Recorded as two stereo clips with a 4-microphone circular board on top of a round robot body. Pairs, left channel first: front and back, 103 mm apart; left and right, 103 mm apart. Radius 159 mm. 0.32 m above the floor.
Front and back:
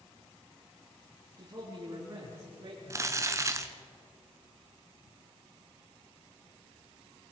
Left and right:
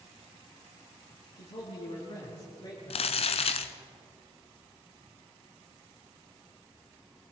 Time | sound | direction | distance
1.4 | a man speaking | 120° left | 6 m
2.9 | crumpling | 115° left | 0.9 m